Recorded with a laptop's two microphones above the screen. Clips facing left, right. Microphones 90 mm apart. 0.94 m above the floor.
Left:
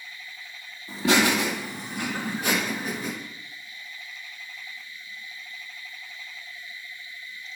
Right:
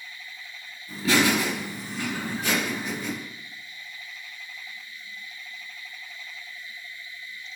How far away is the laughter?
About 2 m.